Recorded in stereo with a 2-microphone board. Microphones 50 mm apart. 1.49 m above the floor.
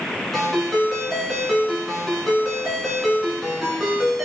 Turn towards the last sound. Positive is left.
turn(degrees=5)  # may be behind; listen again after turning